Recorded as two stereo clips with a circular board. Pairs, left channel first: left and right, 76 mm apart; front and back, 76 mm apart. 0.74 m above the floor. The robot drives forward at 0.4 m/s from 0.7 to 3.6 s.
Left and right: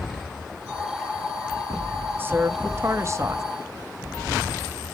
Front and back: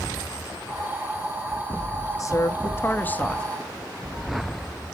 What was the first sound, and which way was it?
A woman speaking, 35° right.